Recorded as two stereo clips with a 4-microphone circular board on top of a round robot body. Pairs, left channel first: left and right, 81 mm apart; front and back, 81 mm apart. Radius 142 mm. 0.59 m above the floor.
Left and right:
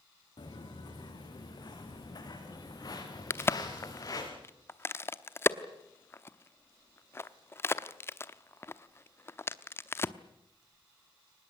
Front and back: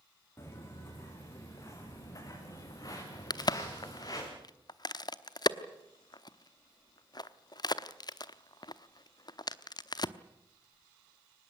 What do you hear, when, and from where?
0.4 s footsteps: 60° left, 5 m; by 4.3 s 40° left, 6.5 m
3.3 s a crack: 30° left, 1.0 m